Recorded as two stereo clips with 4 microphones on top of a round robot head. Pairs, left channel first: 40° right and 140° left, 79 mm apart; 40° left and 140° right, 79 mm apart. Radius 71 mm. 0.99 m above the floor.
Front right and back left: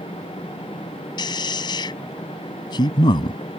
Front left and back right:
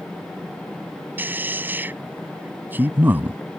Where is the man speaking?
70° right.